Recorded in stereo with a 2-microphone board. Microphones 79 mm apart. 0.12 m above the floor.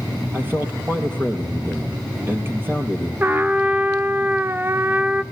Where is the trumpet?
25° right (ahead or behind), 0.6 m.